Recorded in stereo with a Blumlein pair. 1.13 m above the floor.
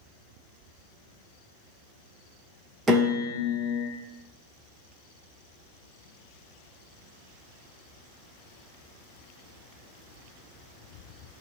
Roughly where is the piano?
Ahead.